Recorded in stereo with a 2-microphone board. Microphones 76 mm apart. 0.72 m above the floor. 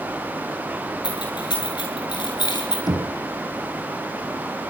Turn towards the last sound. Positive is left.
turn(degrees=-60)  # may be behind; listen again after turning